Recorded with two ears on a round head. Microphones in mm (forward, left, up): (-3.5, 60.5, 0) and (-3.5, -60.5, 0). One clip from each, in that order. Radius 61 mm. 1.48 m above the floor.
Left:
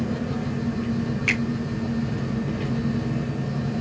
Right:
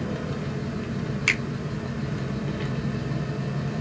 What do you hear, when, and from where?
0.0 s an engine running: 25° right (ahead or behind), 2.5 m
1.3 s a finger snap: 90° right, 5 m